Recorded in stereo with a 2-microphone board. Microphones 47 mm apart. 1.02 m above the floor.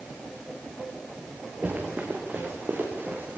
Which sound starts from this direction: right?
Running footsteps, at 1.6 s.